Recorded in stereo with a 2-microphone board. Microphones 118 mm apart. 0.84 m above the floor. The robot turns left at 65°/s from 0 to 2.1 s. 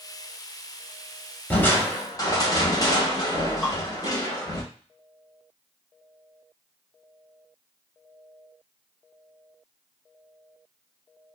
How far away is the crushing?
About 0.8 m.